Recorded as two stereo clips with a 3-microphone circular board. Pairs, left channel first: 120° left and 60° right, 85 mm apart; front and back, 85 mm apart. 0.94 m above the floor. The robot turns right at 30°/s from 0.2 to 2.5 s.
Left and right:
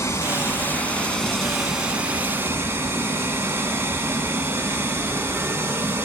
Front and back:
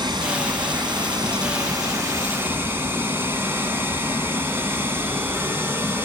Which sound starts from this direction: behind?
Running water, at 0.0 s.